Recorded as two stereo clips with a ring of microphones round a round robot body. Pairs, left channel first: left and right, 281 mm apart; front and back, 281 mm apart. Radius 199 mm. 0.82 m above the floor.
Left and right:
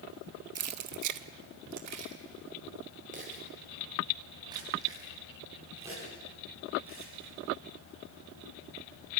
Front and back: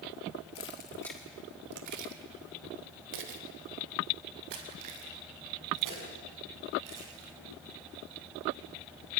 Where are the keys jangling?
55° right, 1.3 m; by 7.3 s 175° right, 8 m.